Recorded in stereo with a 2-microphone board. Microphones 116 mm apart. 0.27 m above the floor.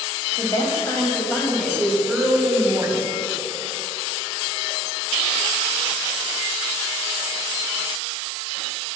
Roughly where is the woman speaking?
Left.